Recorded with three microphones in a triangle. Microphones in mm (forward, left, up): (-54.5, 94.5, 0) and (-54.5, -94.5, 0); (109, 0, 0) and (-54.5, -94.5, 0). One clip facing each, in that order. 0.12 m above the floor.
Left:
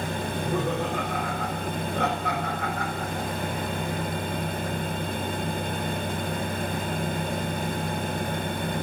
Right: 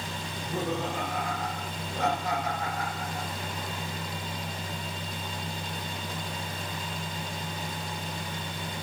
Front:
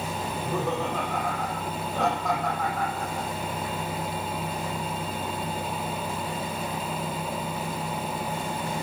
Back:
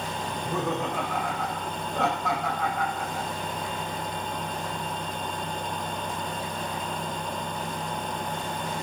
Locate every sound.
0.3 s laughter: 120° left, 4.5 m